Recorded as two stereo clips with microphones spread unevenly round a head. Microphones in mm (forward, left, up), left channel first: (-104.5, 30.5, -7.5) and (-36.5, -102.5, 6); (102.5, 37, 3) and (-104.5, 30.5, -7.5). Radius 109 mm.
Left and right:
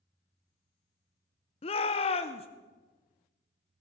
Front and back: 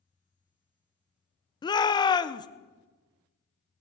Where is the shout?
70° left, 0.6 m.